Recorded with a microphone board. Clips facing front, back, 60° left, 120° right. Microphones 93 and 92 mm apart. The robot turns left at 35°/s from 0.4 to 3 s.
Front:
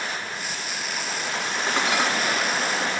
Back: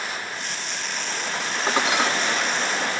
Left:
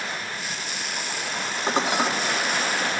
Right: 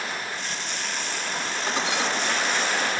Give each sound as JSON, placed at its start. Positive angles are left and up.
{"t": 1.7, "sound": "dishes clattering", "azimuth_deg": 110, "distance_m": 2.5}